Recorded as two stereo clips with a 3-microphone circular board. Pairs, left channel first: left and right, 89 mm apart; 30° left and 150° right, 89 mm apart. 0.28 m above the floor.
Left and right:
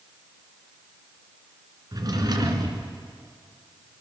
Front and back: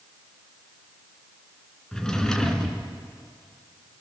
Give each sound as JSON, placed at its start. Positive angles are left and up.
{"t": 1.9, "sound": "a drawer", "azimuth_deg": -50, "distance_m": 2.0}